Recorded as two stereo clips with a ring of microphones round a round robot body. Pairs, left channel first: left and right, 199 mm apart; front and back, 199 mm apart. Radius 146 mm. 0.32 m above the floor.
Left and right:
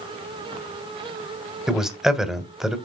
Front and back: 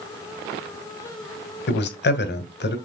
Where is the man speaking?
5° right, 1.8 m.